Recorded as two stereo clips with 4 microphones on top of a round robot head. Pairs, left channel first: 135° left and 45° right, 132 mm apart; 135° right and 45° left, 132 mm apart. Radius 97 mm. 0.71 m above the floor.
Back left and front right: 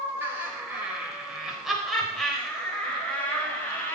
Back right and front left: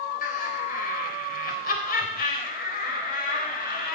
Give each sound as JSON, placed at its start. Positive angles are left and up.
{"t": 0.2, "sound": "laughter", "azimuth_deg": -120, "distance_m": 4.0}